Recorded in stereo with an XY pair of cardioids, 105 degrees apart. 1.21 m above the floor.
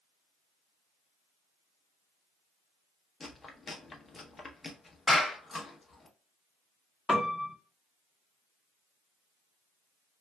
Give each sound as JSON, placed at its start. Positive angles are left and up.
{"t": 3.2, "sound": "chewing", "azimuth_deg": 35, "distance_m": 0.7}
{"t": 5.1, "sound": "a clap", "azimuth_deg": 30, "distance_m": 1.2}
{"t": 7.1, "sound": "a piano", "azimuth_deg": 15, "distance_m": 0.9}